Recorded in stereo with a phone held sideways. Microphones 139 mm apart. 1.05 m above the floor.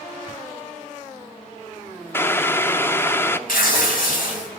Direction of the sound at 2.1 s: 15° left (ahead or behind).